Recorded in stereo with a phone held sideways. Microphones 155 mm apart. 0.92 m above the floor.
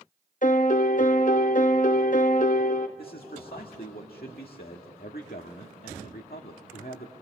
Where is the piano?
60° left (ahead or behind), 0.7 m.